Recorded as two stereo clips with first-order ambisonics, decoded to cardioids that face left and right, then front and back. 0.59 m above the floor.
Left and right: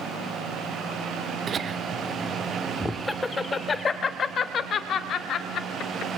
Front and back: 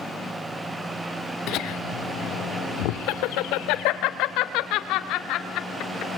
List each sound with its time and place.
1.5 s laughter: 30° right, 1.6 m; by 6.1 s 40° left, 3 m